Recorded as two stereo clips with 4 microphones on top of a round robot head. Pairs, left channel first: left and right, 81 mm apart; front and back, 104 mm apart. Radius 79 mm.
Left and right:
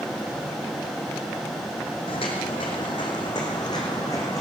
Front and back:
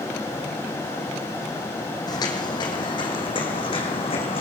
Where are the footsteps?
45° left, 3 m; by 4.4 s 25° left, 4 m.